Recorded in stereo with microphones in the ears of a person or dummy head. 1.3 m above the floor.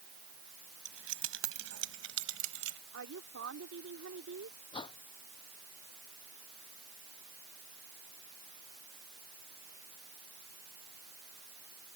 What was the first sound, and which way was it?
Keys jangling, 80° right.